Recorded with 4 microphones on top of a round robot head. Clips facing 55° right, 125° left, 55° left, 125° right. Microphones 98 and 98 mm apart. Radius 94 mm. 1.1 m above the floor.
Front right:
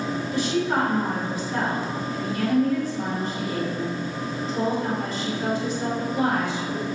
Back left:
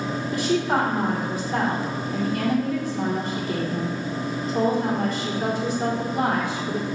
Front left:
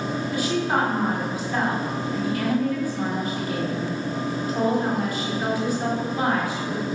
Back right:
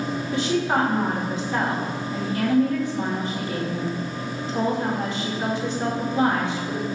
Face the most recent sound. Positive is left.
turn(degrees=170)